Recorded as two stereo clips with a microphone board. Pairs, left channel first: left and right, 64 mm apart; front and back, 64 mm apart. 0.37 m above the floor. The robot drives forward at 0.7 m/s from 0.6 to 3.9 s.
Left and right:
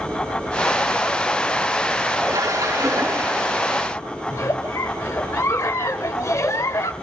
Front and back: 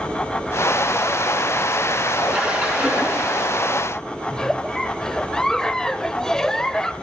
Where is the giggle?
80° left, 0.5 m.